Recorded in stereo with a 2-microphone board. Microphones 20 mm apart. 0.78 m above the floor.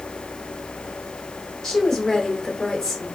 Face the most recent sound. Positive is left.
turn(degrees=30)  # may be behind; listen again after turning